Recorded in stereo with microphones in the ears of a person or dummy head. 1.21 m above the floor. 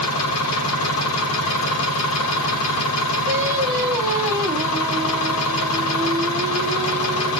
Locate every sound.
0.0 s an engine running: 80° left, 1.5 m
3.3 s singing: 20° right (ahead or behind), 0.9 m